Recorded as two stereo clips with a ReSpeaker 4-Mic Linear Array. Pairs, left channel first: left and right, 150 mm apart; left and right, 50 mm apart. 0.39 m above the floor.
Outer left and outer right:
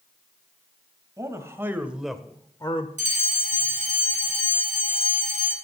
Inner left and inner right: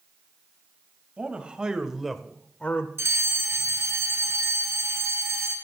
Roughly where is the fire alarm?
Right.